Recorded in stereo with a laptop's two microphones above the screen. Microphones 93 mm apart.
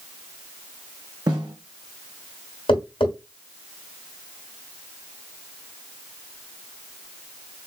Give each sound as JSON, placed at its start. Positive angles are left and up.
{"t": 1.3, "sound": "a snare drum", "side_deg": -50, "distance_m": 3.0}
{"t": 2.7, "sound": "tapping", "side_deg": 70, "distance_m": 2.5}